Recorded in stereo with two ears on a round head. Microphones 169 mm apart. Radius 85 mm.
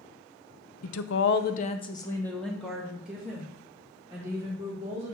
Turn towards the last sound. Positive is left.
turn(degrees=-15)  # may be behind; listen again after turning